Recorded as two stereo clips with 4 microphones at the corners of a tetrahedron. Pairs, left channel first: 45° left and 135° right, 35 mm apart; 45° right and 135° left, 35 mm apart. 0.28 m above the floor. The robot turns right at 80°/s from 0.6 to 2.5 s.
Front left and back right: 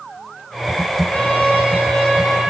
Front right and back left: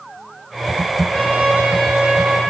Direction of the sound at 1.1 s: 45° left.